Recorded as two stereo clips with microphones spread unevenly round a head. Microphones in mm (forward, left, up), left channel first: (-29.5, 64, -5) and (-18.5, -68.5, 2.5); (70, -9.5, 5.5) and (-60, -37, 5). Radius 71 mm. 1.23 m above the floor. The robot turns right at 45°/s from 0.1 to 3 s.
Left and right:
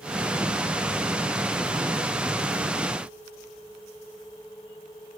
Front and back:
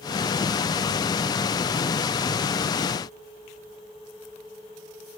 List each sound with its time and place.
Only background noise.